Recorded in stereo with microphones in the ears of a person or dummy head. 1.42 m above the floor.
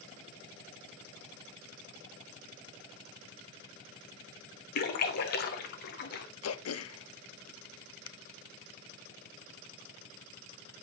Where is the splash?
55° left (ahead or behind), 1.2 m.